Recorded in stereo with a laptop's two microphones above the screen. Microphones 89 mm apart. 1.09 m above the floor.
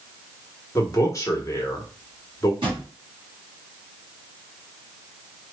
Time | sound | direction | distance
0.8 | a man speaking | 35° left (ahead or behind) | 1.0 m
2.6 | a drawer | 70° right (ahead or behind) | 1.7 m